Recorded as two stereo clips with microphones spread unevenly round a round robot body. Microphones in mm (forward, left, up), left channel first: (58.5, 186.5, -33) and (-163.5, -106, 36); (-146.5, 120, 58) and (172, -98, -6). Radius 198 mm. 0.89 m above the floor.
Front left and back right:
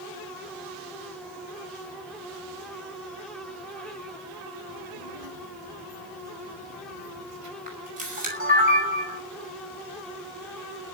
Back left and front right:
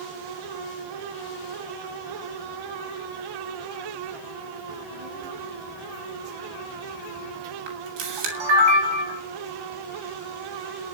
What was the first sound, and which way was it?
A child speaking, 90° right.